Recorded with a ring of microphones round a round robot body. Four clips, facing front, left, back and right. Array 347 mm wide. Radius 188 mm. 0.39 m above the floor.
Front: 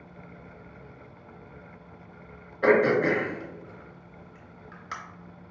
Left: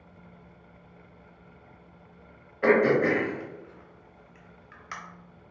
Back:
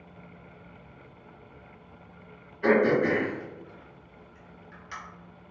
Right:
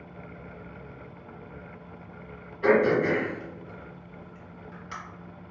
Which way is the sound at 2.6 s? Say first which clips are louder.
Even, front 1 dB; 35° left.